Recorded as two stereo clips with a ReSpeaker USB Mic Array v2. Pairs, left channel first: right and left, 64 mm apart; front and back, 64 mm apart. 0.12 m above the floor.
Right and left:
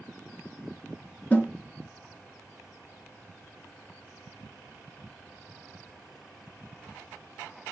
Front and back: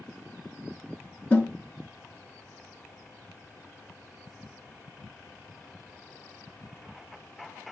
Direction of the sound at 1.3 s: 45° right.